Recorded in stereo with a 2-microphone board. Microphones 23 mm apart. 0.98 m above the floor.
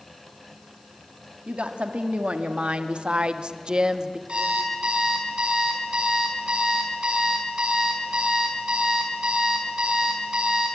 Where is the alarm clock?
55° right (ahead or behind), 6.5 m.